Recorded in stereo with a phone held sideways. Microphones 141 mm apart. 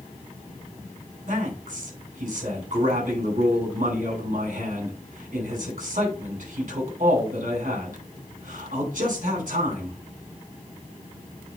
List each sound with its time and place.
1.3 s a man speaking: 70° right (ahead or behind), 4 m